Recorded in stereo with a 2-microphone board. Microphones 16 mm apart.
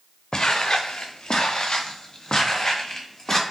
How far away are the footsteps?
About 0.8 m.